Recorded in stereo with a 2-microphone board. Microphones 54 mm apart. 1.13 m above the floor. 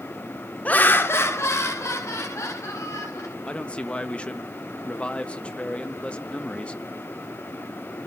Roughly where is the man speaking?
Left.